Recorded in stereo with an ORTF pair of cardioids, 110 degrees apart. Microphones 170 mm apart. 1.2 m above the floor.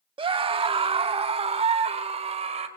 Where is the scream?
30° right, 1.7 m; by 2.7 s 40° right, 5 m.